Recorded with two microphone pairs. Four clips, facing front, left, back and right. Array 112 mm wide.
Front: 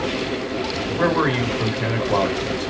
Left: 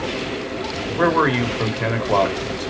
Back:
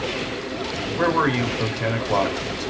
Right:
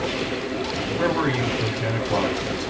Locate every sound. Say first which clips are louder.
1.0 s a man speaking: left 6 dB, even; 95° left, 1.2 m